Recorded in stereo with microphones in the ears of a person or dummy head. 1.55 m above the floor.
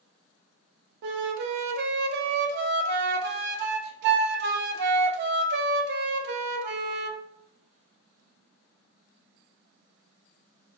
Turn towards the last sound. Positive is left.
turn(degrees=-60)  # may be behind; listen again after turning